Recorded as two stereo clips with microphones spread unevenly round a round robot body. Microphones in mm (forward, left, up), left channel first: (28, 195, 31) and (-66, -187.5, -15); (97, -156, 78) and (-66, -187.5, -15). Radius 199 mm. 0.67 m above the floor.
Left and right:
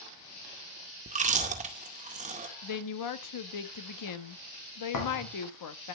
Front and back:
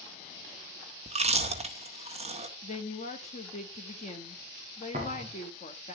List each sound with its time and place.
1.1 s chewing: 170° right, 2.0 m
2.6 s a woman speaking: 90° left, 1.1 m
4.9 s a thud: 120° left, 4.5 m